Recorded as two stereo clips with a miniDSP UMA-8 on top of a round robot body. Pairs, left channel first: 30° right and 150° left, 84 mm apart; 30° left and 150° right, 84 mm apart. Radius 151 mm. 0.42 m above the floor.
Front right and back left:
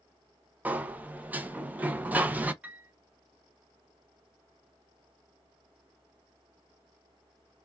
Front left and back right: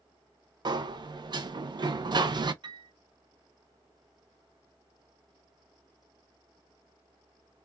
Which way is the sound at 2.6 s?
140° right.